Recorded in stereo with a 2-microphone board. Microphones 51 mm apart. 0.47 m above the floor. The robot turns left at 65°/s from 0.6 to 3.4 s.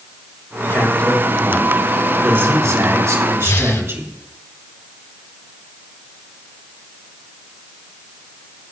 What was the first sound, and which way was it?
A man speaking, 55° left.